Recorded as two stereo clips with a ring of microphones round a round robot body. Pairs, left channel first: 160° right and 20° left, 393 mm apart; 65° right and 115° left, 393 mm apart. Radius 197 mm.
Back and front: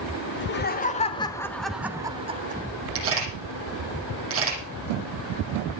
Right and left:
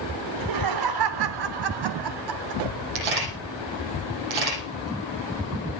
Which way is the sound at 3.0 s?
80° left.